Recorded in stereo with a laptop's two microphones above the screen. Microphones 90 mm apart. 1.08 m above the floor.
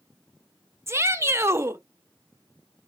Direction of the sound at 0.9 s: 30° right (ahead or behind).